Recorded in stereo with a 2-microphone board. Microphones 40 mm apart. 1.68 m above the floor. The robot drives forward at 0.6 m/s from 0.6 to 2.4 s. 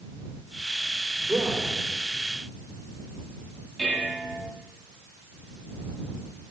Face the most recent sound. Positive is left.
turn(degrees=5)  # may be behind; listen again after turning